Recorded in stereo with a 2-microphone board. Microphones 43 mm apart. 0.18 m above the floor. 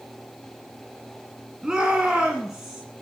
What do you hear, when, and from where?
1.6 s a shout: 15° right (ahead or behind), 1.7 m